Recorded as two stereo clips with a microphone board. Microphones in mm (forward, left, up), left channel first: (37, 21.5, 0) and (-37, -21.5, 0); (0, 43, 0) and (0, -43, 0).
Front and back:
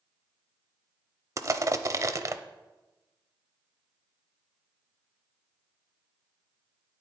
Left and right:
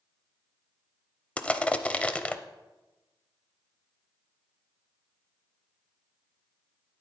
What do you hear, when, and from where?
1.4 s crushing: 165° left, 0.5 m